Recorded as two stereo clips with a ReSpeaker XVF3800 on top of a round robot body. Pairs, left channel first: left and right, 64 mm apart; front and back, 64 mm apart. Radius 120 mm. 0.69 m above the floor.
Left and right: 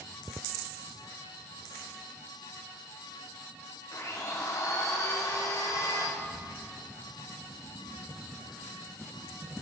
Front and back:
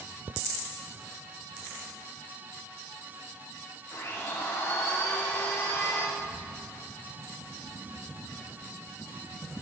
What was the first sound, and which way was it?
A blender, 50° left.